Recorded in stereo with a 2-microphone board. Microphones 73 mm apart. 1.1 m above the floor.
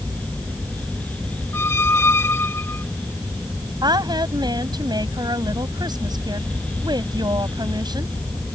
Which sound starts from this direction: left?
A squeak, at 1.5 s.